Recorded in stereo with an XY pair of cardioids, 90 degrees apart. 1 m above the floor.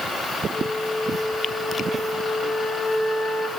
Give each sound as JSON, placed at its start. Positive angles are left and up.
{"t": 0.5, "sound": "a flute", "azimuth_deg": 40, "distance_m": 3.5}